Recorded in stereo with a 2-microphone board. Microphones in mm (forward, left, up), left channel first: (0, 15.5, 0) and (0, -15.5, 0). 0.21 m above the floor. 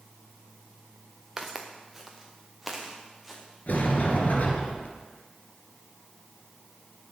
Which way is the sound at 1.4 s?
10° right (ahead or behind).